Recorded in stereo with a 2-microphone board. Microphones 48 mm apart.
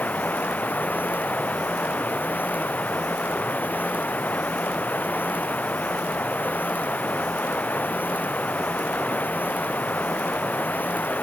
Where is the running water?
35° left (ahead or behind).